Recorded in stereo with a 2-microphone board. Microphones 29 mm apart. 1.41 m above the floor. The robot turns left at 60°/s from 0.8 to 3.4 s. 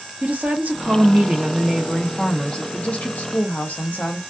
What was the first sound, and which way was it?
A woman speaking, 105° right.